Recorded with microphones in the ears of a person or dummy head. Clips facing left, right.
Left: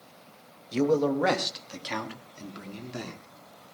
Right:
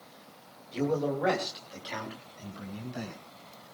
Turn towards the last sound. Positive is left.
turn(degrees=70)  # may be behind; listen again after turning